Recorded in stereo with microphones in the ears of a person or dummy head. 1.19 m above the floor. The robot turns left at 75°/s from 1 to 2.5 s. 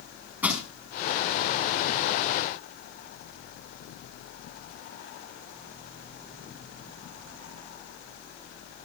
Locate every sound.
0.4 s crushing: 15° right (ahead or behind), 5 m